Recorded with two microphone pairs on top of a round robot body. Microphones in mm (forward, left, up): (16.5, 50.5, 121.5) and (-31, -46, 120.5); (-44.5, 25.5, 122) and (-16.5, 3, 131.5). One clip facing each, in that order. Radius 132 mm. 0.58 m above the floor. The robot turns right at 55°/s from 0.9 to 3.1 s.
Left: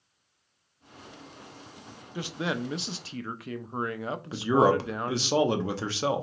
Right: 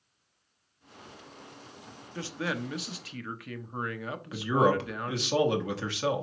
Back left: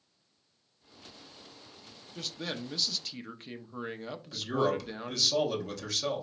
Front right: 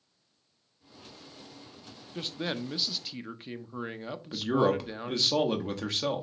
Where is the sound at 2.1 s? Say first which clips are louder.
Left 2 dB, front right 4 dB; 10° left, 0.7 m; by 5.3 s 60° left, 0.7 m.